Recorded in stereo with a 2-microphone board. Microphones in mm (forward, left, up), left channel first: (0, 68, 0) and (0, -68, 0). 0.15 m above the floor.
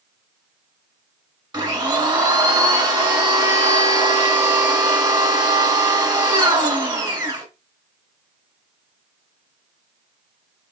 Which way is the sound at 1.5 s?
30° right (ahead or behind).